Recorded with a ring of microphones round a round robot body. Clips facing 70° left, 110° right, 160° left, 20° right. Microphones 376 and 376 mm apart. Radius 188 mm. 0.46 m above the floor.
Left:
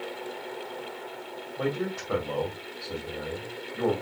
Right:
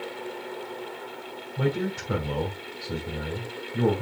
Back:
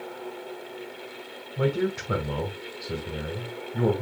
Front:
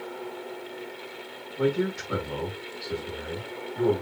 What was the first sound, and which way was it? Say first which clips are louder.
A man speaking: right 2 dB, even; 175° right.